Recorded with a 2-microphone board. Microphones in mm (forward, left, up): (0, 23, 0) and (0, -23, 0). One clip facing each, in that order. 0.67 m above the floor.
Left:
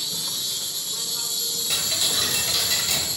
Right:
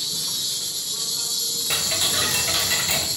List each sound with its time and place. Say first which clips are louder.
0.0 s an insect: right 1 dB; 25° left (ahead or behind), 1.2 m
1.7 s ticking: right 2 dB; 25° right (ahead or behind), 0.8 m